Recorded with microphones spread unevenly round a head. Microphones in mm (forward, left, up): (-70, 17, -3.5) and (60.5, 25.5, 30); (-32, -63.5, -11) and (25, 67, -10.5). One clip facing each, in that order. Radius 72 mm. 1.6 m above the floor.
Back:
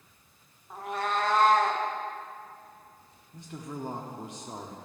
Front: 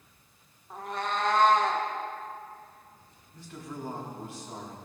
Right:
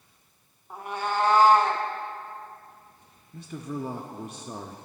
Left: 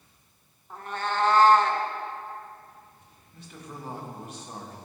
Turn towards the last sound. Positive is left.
turn(degrees=-110)